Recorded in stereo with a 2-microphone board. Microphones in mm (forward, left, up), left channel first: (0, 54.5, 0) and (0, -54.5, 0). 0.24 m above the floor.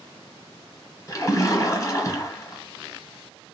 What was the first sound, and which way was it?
A splash, 30° left (ahead or behind).